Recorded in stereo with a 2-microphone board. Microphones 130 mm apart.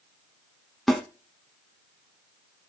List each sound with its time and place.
0.9 s a snare drum: 5° left (ahead or behind), 1.5 m